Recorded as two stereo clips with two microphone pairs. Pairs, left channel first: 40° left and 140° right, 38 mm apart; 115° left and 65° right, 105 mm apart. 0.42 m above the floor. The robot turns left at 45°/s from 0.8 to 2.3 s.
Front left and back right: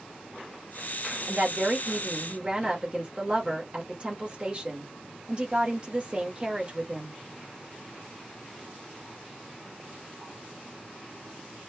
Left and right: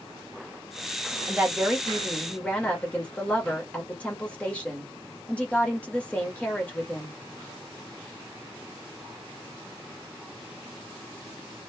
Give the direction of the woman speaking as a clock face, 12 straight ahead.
4 o'clock.